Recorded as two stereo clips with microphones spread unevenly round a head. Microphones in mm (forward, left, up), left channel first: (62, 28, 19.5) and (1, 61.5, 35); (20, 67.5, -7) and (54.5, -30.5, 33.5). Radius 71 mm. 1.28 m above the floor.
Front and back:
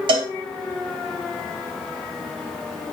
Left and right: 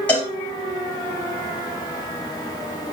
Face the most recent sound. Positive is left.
turn(degrees=-175)